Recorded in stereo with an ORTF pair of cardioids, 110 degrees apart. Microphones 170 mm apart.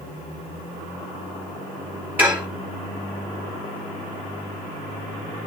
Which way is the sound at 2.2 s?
10° right.